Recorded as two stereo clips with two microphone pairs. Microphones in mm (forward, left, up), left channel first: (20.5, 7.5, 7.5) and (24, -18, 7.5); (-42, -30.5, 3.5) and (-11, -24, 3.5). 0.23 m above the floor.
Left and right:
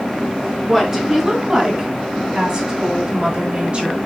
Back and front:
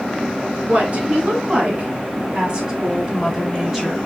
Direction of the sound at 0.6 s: 10° right.